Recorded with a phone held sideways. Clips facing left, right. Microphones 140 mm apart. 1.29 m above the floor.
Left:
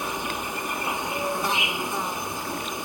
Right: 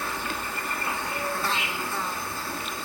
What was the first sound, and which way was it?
An insect, 20° left (ahead or behind).